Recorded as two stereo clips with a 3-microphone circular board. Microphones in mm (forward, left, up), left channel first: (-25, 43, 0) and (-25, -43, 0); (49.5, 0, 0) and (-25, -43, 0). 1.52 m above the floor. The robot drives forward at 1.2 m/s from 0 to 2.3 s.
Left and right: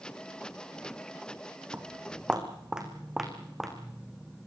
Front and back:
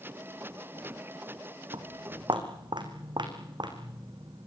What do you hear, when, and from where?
1.7 s footsteps: 160° right, 3.5 m; by 4.5 s straight behind, 5.5 m